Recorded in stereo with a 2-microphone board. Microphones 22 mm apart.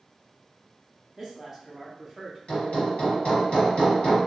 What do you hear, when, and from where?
1.2 s a woman speaking: 15° right (ahead or behind), 1.3 m; by 2.4 s 5° right (ahead or behind), 1.5 m
2.5 s hammering: 60° left (ahead or behind), 1.3 m